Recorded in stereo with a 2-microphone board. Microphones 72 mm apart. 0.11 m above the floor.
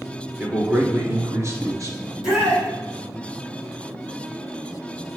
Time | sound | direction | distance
0.4 | a man speaking | 20° right (ahead or behind) | 1.6 m
2.0 | a shout | 10° right (ahead or behind) | 3 m